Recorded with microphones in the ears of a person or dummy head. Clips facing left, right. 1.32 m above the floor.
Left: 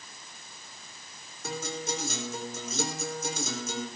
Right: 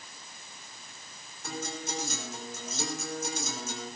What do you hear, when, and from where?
1.4 s a guitar: 70° left (ahead or behind), 3.5 m